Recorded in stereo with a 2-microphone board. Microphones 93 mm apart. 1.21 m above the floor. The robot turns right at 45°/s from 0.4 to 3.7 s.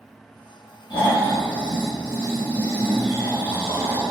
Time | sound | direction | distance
0.9 | snoring | 85° left | 1.0 m